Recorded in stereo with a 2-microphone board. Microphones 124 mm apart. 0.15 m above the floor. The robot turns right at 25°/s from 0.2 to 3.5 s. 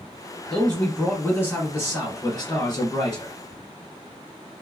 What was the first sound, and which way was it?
A man speaking, 10° left.